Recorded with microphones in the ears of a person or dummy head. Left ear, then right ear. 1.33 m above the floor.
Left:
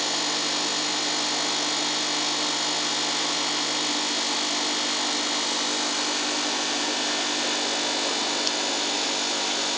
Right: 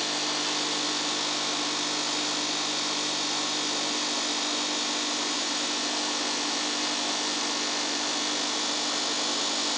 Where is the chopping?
No chopping in this recording.